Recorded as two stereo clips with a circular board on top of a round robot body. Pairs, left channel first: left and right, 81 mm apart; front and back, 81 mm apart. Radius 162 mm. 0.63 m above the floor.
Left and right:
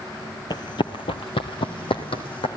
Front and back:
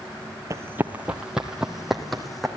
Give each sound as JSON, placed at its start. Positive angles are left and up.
{"t": 0.5, "sound": "running footsteps", "azimuth_deg": 125, "distance_m": 0.8}